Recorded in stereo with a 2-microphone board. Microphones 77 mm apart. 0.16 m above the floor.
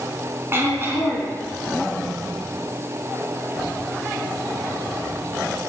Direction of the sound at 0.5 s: 30° right (ahead or behind).